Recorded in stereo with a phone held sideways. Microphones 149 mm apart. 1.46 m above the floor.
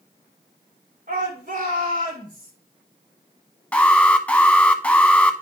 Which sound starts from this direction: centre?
An alarm, at 3.7 s.